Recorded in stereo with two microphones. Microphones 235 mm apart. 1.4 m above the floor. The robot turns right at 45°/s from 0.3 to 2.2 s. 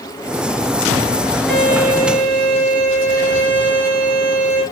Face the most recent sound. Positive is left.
turn(degrees=-150)